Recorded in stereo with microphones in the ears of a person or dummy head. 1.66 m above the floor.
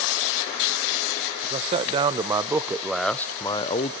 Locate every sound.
1.4 s a man speaking: 35° right (ahead or behind), 1.5 m; by 3.9 s 40° left (ahead or behind), 0.9 m